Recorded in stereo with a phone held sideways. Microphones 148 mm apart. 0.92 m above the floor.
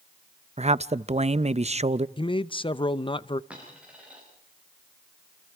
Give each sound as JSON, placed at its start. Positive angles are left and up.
{"t": 0.6, "sound": "a man speaking", "side_deg": -50, "distance_m": 0.5}
{"t": 2.2, "sound": "a man speaking", "side_deg": 35, "distance_m": 0.6}
{"t": 3.5, "sound": "a dropped coin", "side_deg": -10, "distance_m": 8.5}